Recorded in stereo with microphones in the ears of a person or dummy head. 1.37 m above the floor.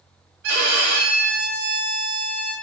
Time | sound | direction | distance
0.4 | a violin | 60° right (ahead or behind) | 0.7 m